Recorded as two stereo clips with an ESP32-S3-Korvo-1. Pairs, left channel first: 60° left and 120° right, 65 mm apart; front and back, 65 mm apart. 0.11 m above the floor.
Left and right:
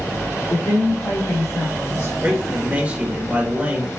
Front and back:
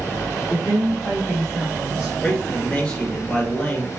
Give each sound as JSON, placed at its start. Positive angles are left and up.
{"t": 0.5, "sound": "a woman speaking", "azimuth_deg": 70, "distance_m": 3.0}
{"t": 2.2, "sound": "a man speaking", "azimuth_deg": -65, "distance_m": 1.7}